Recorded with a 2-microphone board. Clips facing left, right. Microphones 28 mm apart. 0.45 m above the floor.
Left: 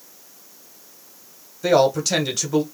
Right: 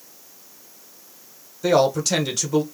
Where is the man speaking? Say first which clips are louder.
Left 1 dB; 5° left (ahead or behind), 1.2 m.